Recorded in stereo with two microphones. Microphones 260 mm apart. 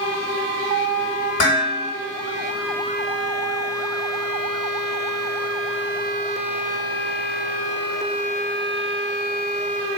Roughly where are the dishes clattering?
Left.